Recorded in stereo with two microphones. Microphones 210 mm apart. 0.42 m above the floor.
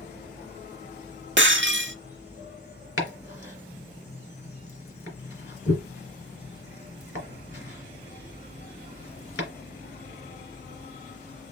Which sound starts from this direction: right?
Breaking glass, at 1.4 s.